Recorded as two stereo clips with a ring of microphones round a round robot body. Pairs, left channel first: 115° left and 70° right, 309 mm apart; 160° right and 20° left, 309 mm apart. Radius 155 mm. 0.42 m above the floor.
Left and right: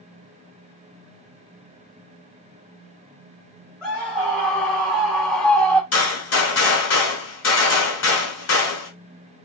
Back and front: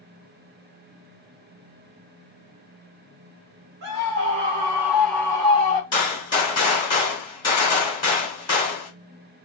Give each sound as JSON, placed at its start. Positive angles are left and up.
{"t": 3.8, "sound": "a scream", "azimuth_deg": 15, "distance_m": 1.3}
{"t": 5.9, "sound": "a gunshot", "azimuth_deg": 135, "distance_m": 1.6}